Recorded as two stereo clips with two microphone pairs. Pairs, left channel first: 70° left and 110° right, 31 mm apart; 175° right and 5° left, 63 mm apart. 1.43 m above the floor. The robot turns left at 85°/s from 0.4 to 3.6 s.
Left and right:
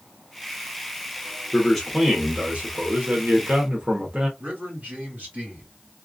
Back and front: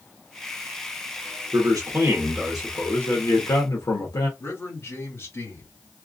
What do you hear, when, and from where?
1.5 s a man speaking: 10° left, 1.5 m; by 4.3 s 170° right, 1.5 m
4.4 s a man speaking: 130° right, 2.5 m